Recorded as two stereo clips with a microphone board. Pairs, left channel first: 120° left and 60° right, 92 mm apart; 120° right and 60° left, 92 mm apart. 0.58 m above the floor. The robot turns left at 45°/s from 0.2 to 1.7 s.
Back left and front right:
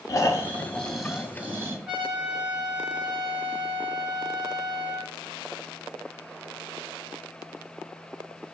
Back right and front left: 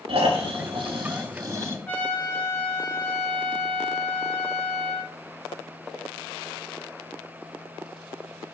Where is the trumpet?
120° right, 1.3 m.